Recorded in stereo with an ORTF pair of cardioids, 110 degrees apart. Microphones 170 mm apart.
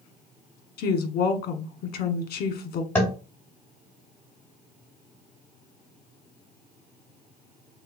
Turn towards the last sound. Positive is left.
turn(degrees=15)